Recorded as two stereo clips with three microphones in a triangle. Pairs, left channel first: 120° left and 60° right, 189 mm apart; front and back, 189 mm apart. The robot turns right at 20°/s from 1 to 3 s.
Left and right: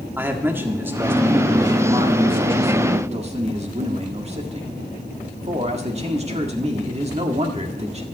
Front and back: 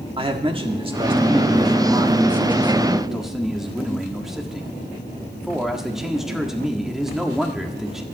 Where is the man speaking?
135° right, 1.6 m; by 8.0 s 95° right, 1.6 m.